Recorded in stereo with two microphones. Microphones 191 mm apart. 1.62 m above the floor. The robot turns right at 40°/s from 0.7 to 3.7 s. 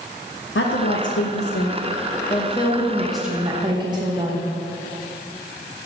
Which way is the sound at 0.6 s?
80° left.